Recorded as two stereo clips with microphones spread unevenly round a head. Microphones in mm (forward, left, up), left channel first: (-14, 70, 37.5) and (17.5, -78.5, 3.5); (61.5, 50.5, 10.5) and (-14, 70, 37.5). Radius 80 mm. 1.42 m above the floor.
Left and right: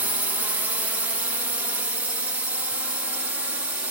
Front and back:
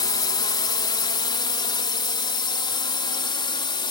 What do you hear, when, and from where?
0.0 s a drone: 5° right; by 3.9 s straight ahead